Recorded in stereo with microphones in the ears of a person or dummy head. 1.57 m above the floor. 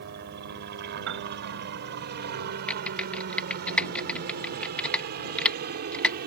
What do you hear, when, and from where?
0.0 s a helicopter: 55° right (ahead or behind); by 6.3 s 50° right (ahead or behind)
1.1 s a piano: 70° right (ahead or behind)
2.7 s typing on a keyboard: 10° left (ahead or behind)